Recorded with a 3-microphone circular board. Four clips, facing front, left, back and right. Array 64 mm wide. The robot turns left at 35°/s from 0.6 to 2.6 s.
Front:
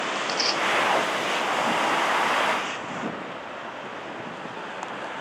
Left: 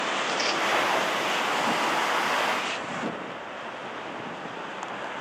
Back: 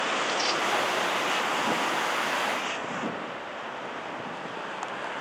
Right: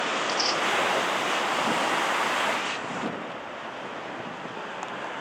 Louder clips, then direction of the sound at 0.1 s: Even, front 1 dB; 50° left.